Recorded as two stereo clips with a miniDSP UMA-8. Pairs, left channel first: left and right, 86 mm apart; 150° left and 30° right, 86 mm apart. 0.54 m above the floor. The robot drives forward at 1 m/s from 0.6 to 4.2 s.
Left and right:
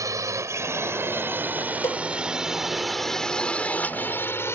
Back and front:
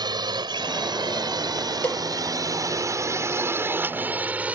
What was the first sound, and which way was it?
A drone, 50° right.